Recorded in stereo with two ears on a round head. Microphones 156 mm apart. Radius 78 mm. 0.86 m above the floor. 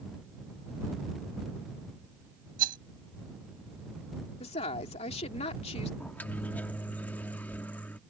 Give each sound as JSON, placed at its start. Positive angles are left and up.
{"t": 2.6, "sound": "a rattle", "side_deg": -55}
{"t": 4.4, "sound": "a woman speaking", "side_deg": 40}
{"t": 6.0, "sound": "a microwave", "side_deg": 10}